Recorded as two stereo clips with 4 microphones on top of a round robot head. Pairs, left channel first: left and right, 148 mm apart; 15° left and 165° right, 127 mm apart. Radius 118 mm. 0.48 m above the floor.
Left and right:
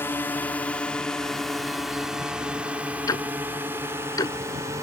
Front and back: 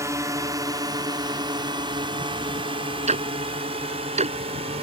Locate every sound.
0.0 s a drone: 155° left; by 4.8 s 155° right
3.1 s ticking: 160° left